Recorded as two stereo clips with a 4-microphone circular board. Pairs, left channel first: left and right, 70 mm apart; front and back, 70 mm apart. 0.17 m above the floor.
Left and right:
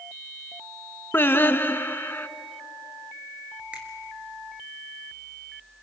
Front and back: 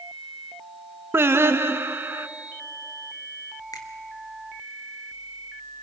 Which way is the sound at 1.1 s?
140° left.